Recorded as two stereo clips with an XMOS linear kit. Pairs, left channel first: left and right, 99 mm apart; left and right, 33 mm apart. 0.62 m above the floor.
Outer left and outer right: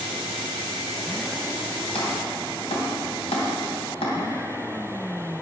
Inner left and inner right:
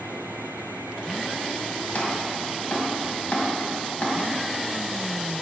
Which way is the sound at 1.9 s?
80° left.